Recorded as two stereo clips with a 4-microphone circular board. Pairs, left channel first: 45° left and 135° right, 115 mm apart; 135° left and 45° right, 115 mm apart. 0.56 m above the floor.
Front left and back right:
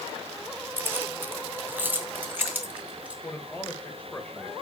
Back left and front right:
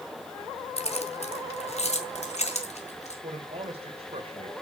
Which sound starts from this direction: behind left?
Keys jangling, at 0.8 s.